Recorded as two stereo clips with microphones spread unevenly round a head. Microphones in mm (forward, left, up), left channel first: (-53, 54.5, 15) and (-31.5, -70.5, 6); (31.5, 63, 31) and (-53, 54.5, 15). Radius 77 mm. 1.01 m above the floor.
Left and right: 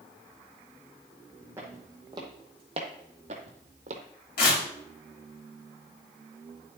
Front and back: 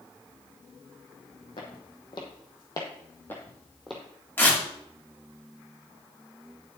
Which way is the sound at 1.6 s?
5° right.